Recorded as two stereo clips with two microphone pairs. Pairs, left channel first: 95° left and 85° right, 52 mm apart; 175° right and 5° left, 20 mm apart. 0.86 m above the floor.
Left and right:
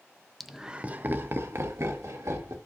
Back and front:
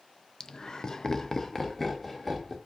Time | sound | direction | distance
0.4 | laughter | straight behind | 0.5 m